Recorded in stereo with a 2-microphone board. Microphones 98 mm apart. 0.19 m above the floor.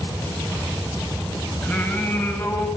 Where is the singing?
10° left (ahead or behind), 7.5 m.